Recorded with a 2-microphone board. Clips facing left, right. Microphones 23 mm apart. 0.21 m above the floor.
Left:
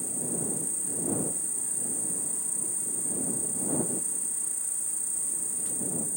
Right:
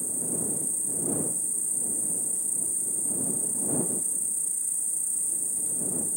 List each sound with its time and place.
0.0 s an insect: 15° left (ahead or behind)